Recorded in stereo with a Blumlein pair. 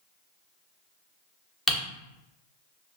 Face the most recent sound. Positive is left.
turn(degrees=15)